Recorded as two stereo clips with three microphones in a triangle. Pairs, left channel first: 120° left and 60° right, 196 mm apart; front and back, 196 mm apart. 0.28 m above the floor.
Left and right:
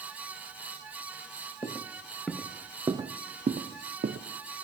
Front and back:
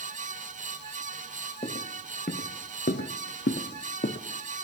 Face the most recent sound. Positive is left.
turn(degrees=-35)